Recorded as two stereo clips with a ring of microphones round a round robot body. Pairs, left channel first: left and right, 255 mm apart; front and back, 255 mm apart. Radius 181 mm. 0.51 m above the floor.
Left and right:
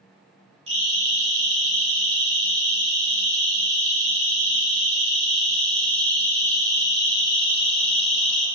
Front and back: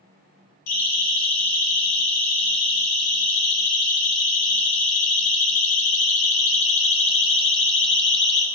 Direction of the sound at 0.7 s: 20° right.